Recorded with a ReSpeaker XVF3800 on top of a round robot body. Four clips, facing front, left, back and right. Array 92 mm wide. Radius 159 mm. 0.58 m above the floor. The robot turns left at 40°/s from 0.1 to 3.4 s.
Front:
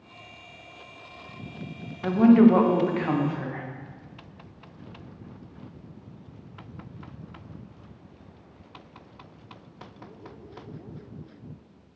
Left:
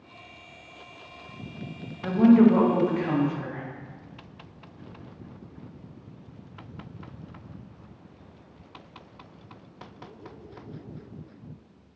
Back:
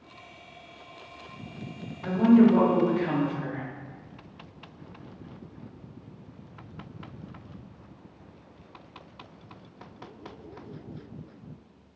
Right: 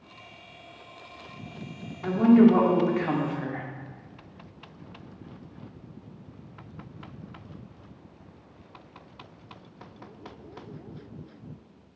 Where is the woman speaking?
15° left, 0.9 m; by 3.6 s 40° right, 0.9 m.